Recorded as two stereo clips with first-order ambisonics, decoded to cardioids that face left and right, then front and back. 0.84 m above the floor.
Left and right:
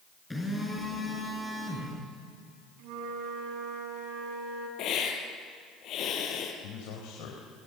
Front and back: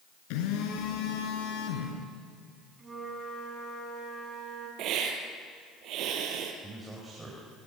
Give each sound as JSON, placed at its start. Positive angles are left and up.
{"t": 0.3, "sound": "a phone buzzing", "azimuth_deg": 5, "distance_m": 5.0}
{"t": 2.8, "sound": "a flute", "azimuth_deg": -100, "distance_m": 6.0}
{"t": 4.8, "sound": "a hiss", "azimuth_deg": 140, "distance_m": 3.5}
{"t": 6.6, "sound": "a man speaking", "azimuth_deg": 100, "distance_m": 4.0}